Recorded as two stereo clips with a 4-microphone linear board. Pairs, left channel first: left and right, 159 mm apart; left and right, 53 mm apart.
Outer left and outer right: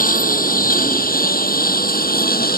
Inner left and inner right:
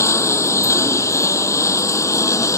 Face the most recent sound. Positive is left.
turn(degrees=70)  # may be behind; listen again after turning